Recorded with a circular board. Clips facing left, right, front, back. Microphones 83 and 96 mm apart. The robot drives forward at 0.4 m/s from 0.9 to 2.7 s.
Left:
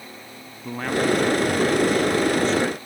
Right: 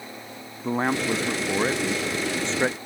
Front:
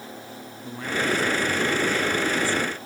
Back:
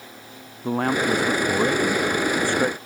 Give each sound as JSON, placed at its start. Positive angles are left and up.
{"t": 0.6, "sound": "a man speaking", "azimuth_deg": -150}